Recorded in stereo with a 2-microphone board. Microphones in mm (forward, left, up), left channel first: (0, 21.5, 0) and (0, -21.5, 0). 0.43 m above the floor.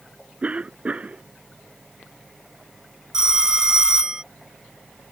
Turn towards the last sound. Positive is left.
turn(degrees=-15)  # may be behind; listen again after turning